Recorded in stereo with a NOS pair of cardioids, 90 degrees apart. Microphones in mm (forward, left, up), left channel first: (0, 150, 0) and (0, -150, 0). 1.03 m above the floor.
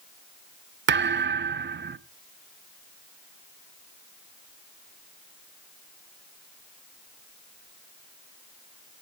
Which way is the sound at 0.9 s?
35° right.